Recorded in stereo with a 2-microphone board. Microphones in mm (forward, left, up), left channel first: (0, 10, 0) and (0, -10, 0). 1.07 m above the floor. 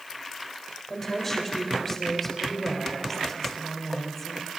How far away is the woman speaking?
About 4 m.